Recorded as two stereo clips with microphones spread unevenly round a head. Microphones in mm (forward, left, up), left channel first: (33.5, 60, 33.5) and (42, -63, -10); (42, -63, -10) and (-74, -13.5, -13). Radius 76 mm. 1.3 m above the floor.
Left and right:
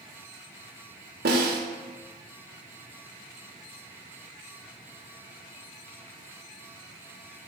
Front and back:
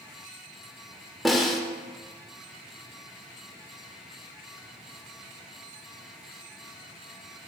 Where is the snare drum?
110° right, 1.5 m.